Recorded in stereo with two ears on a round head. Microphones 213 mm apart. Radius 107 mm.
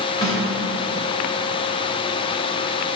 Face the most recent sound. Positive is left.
turn(degrees=15)  # may be behind; listen again after turning